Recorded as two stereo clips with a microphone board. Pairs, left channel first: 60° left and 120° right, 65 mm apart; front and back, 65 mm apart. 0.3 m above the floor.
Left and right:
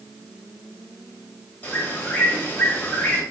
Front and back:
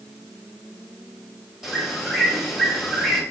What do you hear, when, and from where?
1.6 s a bird: 100° left, 1.0 m